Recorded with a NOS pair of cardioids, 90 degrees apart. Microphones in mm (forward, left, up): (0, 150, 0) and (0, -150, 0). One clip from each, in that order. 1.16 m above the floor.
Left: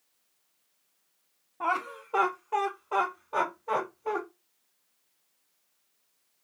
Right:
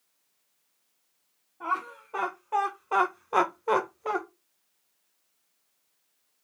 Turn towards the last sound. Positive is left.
turn(degrees=-60)